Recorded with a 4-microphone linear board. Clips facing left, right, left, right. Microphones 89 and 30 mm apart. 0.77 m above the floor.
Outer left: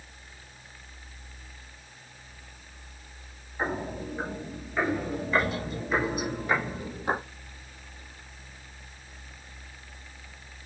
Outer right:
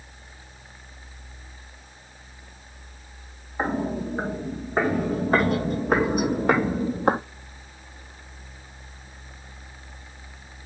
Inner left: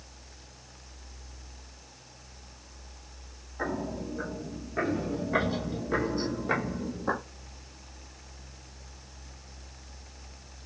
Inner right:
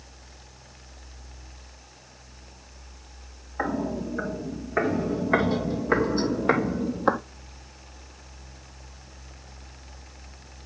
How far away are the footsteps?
About 3.5 m.